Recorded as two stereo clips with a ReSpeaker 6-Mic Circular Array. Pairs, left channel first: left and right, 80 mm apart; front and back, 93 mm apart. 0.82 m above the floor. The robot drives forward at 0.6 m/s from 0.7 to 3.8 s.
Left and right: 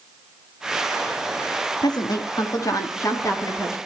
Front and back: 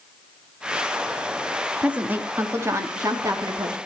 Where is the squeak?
No squeak in this recording.